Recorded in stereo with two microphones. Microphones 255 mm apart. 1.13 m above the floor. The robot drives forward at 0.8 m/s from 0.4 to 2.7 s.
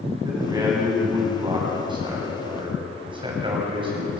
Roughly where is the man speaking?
Centre.